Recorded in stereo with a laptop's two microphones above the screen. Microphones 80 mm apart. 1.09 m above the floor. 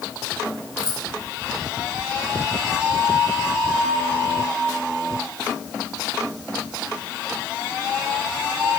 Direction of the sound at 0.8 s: 70° right (ahead or behind).